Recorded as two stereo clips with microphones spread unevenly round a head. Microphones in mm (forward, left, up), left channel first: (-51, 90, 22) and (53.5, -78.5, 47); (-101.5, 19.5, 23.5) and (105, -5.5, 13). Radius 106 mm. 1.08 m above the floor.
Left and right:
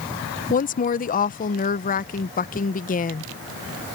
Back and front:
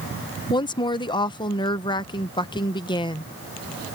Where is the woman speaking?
110° left.